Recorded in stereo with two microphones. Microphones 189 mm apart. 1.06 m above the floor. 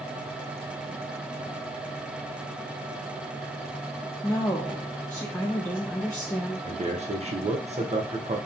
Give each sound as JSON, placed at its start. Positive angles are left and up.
{"t": 4.2, "sound": "a woman speaking", "side_deg": 10, "distance_m": 0.5}
{"t": 6.7, "sound": "a man speaking", "side_deg": -40, "distance_m": 0.6}